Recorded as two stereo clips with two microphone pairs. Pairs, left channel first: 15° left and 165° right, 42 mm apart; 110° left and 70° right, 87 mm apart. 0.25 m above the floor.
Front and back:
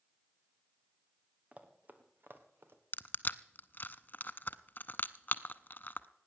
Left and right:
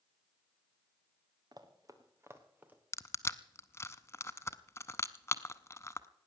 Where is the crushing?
55° left, 0.6 m.